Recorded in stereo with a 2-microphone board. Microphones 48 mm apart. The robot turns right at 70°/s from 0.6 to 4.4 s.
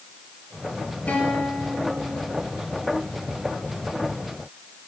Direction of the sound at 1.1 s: 145° left.